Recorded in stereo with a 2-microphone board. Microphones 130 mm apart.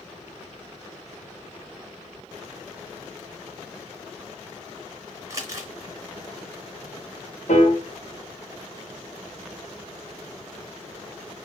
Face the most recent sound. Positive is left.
turn(degrees=80)